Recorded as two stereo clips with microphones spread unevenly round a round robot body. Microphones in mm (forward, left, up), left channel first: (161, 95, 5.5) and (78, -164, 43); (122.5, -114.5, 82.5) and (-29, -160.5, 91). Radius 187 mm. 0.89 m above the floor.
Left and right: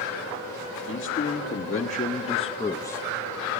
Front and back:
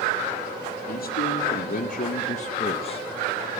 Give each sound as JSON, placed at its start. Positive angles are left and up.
{"t": 0.9, "sound": "a man speaking", "azimuth_deg": 25, "distance_m": 2.0}